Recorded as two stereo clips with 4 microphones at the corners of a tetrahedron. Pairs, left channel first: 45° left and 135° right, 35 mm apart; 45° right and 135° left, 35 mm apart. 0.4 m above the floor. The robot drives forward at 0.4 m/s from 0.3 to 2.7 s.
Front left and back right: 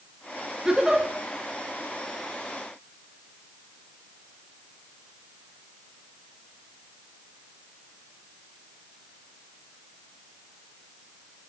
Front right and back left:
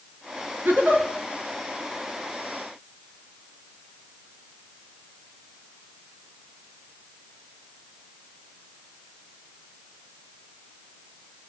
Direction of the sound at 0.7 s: 155° left.